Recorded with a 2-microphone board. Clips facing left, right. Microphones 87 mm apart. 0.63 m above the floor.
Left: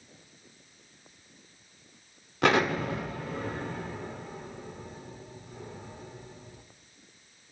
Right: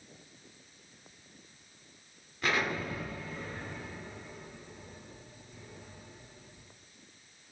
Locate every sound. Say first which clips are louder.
2.4 s an explosion: left 8 dB; 70° left (ahead or behind), 0.8 m